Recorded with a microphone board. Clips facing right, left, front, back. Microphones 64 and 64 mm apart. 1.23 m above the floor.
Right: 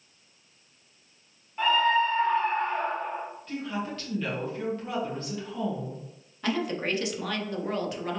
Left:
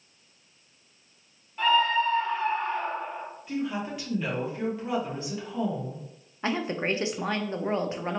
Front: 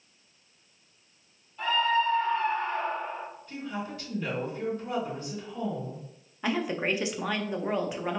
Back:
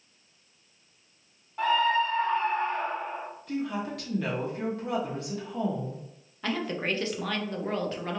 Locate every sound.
1.6 s a scream: 165° right, 1.4 m; by 3.2 s 110° right, 1.3 m
3.5 s a woman speaking: 170° left, 1.5 m
6.4 s a woman speaking: 65° left, 0.5 m